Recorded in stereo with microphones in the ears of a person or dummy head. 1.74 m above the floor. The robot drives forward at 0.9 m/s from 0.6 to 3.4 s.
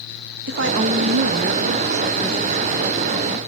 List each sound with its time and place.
0.5 s a woman speaking: 60° right (ahead or behind), 1.0 m; by 3.4 s 20° right (ahead or behind), 2.5 m